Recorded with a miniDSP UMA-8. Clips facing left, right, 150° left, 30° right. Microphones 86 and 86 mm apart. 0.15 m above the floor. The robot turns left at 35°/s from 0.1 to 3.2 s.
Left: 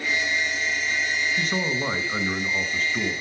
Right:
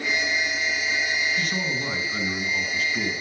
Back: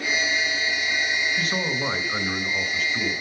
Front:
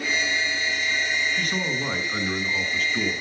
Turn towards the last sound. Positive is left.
turn(degrees=50)